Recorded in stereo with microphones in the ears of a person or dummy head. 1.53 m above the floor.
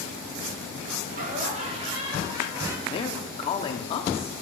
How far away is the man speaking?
About 1.0 m.